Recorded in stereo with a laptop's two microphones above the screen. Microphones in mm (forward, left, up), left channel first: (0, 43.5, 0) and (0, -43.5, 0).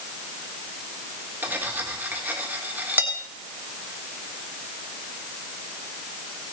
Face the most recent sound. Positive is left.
turn(degrees=-20)  # may be behind; listen again after turning